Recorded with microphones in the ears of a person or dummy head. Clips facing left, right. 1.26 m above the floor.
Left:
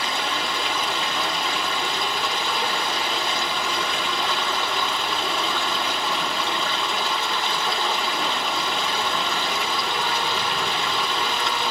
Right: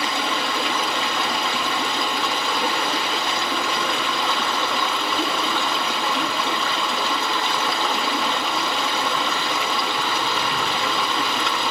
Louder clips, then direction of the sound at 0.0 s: Right 3 dB; 65° right (ahead or behind).